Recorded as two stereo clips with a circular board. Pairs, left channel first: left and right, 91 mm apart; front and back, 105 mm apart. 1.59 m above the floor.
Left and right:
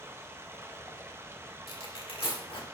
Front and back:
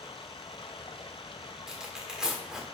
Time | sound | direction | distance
0.0 | running water | 30° right | 0.7 m
1.7 | tearing paper | 95° left | 1.5 m